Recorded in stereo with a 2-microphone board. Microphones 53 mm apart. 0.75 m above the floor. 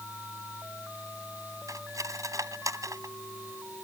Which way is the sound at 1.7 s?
75° right (ahead or behind).